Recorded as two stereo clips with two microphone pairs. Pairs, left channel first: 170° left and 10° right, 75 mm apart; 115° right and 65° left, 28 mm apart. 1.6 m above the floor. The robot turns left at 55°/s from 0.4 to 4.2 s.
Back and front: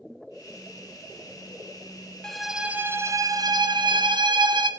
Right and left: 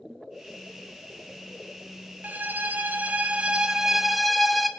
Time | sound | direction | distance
2.2 | a violin | 85° left | 0.5 m